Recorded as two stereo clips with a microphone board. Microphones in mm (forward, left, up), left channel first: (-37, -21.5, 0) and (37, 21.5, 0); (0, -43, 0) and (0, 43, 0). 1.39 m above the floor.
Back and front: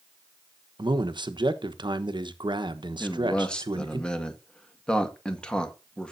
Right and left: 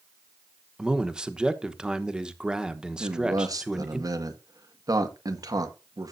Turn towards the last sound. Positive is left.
turn(degrees=130)